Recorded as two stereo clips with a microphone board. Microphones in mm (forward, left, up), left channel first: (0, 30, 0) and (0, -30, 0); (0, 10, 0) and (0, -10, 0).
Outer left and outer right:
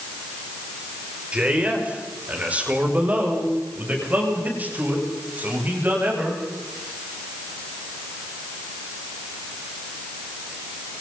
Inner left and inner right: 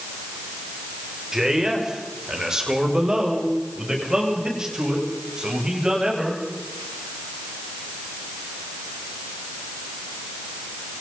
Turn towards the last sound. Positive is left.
turn(degrees=-35)  # may be behind; listen again after turning